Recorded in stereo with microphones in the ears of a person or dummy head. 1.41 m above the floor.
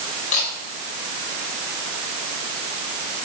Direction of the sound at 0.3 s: 45° left (ahead or behind).